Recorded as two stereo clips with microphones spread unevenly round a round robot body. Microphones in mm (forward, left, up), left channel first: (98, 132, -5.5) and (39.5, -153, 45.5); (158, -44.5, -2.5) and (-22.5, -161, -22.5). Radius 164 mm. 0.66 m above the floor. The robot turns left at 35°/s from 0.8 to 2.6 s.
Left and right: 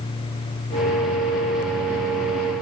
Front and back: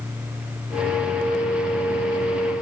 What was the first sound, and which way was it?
Only background noise.